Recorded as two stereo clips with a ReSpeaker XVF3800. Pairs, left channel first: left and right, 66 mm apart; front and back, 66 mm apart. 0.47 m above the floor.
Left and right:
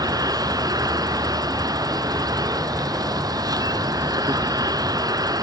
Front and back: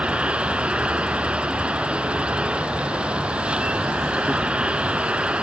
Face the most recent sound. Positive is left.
turn(degrees=-105)